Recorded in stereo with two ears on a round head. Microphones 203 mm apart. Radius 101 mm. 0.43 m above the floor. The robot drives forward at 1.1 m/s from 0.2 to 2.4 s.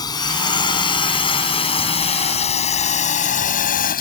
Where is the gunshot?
I don't hear a gunshot.